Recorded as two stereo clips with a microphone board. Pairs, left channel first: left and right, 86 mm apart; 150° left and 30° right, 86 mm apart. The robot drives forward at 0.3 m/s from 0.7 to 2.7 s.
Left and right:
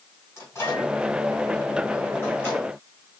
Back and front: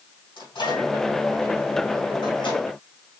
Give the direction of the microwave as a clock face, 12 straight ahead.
7 o'clock.